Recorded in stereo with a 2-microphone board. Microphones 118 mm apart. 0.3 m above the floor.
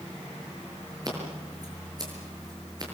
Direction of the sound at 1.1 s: 35° right (ahead or behind).